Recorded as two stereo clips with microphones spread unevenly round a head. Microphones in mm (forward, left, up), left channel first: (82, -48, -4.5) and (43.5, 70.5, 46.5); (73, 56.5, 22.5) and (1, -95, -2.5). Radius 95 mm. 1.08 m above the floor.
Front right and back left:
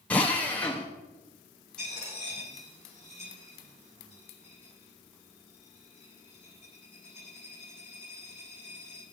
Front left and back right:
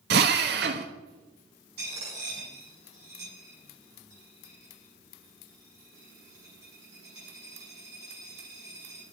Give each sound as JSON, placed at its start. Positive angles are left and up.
{"t": 0.1, "sound": "a drill", "azimuth_deg": -150, "distance_m": 1.1}
{"t": 1.8, "sound": "a dropped coin", "azimuth_deg": -160, "distance_m": 8.5}